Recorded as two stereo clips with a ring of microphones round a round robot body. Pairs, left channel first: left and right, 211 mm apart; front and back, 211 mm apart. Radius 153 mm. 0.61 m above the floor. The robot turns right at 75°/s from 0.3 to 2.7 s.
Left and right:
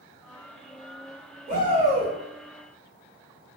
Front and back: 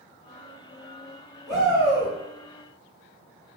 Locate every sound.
1.5 s a shout: 90° right, 1.1 m; by 2.1 s 40° right, 1.1 m